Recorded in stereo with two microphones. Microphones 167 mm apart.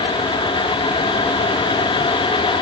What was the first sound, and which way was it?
Only background noise.